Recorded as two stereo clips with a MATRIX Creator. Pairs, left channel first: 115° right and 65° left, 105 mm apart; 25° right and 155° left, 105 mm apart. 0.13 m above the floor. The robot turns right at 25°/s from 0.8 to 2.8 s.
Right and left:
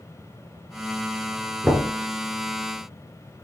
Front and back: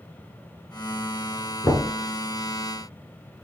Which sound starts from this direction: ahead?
Knocking, at 1.6 s.